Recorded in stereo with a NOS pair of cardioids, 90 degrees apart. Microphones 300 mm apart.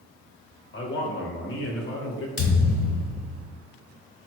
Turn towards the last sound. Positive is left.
turn(degrees=50)